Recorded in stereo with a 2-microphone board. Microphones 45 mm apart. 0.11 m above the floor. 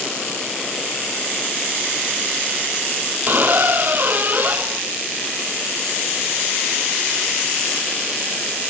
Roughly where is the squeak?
Right.